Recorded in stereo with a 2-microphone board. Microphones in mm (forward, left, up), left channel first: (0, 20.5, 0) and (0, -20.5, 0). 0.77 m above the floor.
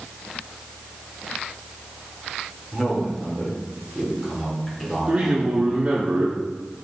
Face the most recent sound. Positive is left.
turn(degrees=-45)  # may be behind; listen again after turning